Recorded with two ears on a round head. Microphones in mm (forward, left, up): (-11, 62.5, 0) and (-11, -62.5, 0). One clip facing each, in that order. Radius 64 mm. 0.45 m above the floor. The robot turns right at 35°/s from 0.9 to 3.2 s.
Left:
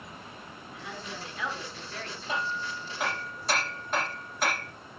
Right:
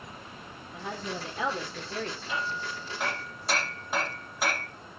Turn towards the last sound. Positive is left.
turn(degrees=-5)  # may be behind; listen again after turning